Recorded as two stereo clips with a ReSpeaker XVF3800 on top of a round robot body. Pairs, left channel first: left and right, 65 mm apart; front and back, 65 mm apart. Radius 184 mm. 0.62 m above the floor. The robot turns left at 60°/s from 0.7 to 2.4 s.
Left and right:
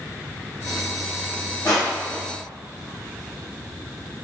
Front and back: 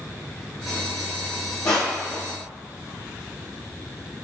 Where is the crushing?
45° left, 0.6 m; by 2.2 s 10° left, 0.6 m.